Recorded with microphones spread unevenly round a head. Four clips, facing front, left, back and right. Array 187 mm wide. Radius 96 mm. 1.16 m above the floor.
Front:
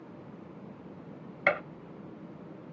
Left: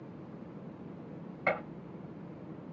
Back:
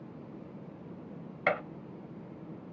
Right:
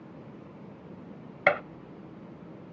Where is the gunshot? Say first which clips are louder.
Right 7 dB, front 1 dB; 80° right, 1.9 m.